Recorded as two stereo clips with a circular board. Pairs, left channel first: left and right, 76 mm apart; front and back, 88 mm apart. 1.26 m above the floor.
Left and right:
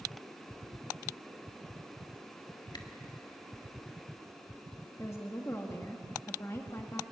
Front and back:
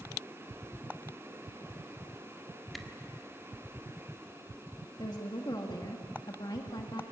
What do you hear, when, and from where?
2.7 s a camera shutter: 90° left, 1.6 m
5.0 s a woman speaking: 35° left, 1.8 m